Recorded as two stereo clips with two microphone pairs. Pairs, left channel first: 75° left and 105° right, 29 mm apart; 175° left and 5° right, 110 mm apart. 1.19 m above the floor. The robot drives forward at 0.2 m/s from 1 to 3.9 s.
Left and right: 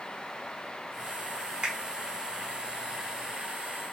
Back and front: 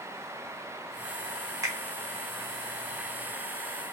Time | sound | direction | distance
1.6 | a finger snap | 60° right | 0.8 m